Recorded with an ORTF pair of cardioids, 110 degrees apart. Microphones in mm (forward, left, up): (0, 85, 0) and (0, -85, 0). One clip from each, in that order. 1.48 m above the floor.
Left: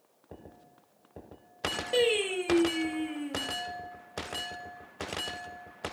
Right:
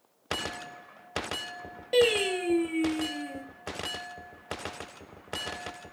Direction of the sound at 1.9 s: 10° right.